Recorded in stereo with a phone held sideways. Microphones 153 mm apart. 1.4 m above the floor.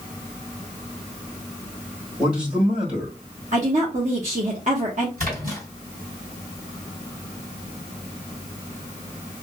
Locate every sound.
2.2 s a man speaking: 35° right (ahead or behind), 1.4 m
3.5 s a woman speaking: 50° right (ahead or behind), 1.1 m
5.2 s a splash: 70° right (ahead or behind), 3 m